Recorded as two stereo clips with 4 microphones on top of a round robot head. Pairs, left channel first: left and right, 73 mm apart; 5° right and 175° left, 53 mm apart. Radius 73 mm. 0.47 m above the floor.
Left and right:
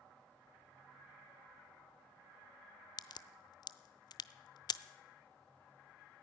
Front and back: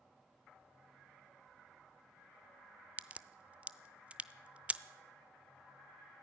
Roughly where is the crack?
Left.